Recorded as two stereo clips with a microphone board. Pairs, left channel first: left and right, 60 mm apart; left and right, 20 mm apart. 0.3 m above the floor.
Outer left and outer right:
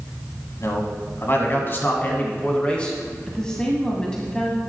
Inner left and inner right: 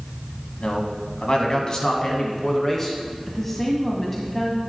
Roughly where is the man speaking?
Left.